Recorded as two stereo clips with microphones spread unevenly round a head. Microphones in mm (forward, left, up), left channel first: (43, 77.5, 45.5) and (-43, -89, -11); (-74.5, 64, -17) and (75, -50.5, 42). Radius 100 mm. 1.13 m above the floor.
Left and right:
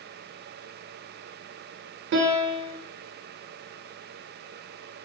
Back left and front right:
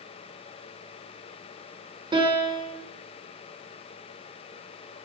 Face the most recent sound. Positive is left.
turn(degrees=-110)